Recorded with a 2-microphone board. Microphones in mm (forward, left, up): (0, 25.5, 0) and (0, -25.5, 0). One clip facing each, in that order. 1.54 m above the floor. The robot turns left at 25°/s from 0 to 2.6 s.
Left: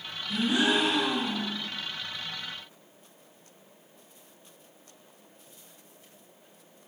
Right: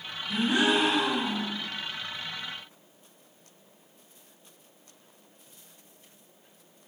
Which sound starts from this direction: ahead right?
A gasp, at 0.3 s.